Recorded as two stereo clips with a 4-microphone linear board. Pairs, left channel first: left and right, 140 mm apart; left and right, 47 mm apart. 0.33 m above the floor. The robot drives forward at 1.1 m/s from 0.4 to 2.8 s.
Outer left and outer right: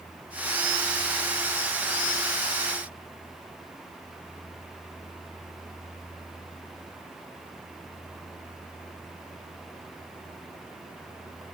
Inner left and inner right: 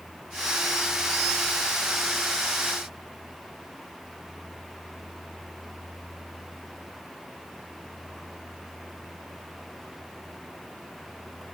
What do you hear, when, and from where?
Only background noise.